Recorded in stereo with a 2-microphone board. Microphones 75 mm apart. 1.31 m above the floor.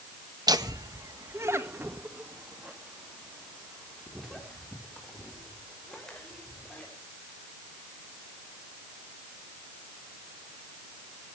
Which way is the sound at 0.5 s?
70° right (ahead or behind).